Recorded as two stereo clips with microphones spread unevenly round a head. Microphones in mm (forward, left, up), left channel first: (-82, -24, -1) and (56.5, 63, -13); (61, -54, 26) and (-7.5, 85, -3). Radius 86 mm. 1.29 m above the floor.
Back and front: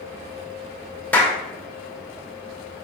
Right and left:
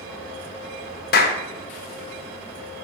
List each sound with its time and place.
1.1 s a clap: 70° right, 0.9 m